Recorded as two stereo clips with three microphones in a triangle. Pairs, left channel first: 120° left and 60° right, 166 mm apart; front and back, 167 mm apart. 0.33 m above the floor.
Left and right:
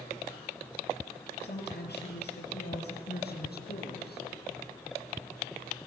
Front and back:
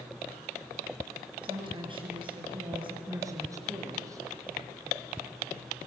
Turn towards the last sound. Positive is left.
turn(degrees=110)